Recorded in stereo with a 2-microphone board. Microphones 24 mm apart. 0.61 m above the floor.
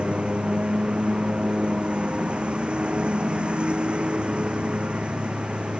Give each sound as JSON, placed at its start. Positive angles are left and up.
{"t": 0.0, "sound": "a lawn mower", "side_deg": -50}